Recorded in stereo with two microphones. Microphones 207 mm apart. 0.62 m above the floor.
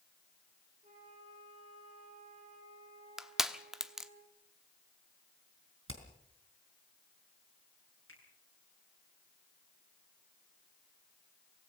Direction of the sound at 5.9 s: 85° right.